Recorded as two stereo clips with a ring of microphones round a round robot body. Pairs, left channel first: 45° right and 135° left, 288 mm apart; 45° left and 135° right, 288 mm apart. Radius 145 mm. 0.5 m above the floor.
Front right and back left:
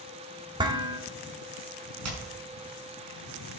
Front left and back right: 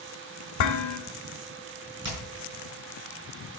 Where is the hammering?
175° left, 5 m.